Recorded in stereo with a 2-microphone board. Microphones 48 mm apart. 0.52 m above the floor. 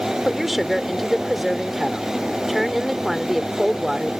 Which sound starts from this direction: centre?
A woman speaking, at 0.2 s.